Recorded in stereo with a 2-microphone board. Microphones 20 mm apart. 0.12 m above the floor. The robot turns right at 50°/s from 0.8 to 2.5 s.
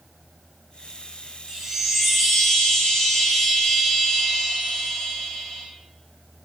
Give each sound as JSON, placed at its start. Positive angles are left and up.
{"t": 1.5, "sound": "a chime", "azimuth_deg": -30, "distance_m": 4.5}